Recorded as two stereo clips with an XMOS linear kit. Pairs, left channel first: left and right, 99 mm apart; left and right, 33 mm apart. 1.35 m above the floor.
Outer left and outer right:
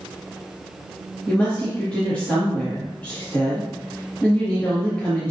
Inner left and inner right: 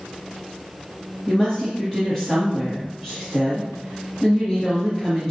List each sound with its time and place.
1.3 s a woman speaking: 15° left (ahead or behind), 2.5 m